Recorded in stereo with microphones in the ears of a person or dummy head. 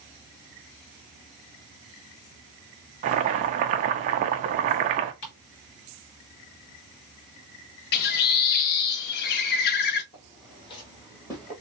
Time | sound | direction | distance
3.0 | boiling | 35° right (ahead or behind) | 0.6 m
5.2 | ticking | 50° left (ahead or behind) | 2.5 m
7.9 | a bird | 45° left (ahead or behind) | 0.7 m
10.1 | footsteps | 35° left (ahead or behind) | 2.5 m